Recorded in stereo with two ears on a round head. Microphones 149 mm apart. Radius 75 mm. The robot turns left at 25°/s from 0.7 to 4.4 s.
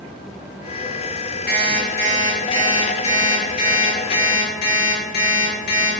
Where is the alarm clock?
175° left, 1.0 m; by 5.9 s 100° left, 1.0 m.